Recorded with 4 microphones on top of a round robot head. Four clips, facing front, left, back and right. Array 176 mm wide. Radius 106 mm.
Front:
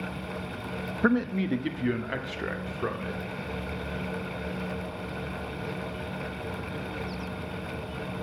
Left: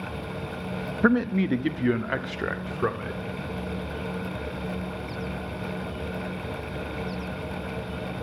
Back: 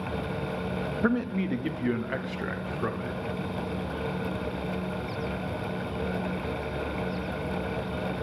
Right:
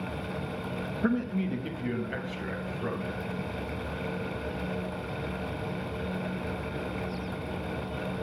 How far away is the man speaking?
About 0.7 m.